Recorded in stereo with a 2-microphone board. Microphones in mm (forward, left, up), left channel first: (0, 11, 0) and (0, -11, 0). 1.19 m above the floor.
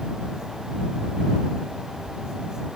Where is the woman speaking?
I don't hear a woman speaking.